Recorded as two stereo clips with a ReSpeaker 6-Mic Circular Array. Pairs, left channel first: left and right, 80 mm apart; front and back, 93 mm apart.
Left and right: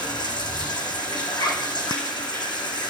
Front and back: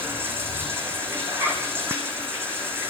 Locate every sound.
0.0 s running water: 115° left, 6.5 m
1.3 s a zipper: 115° left, 4 m